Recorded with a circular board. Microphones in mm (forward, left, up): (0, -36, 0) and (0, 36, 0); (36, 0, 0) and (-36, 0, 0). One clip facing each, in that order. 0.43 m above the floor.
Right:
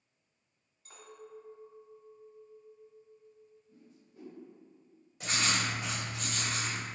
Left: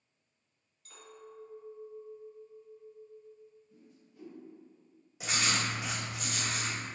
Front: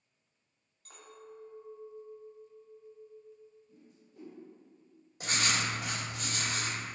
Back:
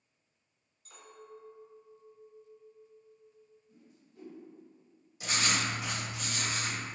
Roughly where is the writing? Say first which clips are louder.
Even, even; ahead.